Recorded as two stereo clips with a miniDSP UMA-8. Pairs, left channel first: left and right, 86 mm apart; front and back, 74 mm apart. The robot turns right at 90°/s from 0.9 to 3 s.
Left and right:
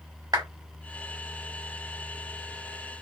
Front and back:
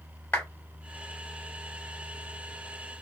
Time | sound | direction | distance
0.3 | a clap | 65° right | 1.9 m